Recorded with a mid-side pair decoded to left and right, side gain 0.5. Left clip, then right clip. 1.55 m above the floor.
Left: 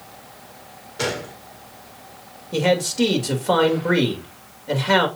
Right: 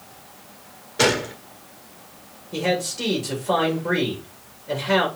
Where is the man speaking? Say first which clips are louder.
Left 4 dB; 45° left, 3 m.